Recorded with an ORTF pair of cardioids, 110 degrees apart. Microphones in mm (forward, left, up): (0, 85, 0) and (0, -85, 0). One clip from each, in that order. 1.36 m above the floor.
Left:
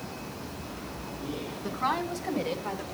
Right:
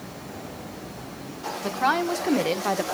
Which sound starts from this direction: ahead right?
A woman speaking, at 1.6 s.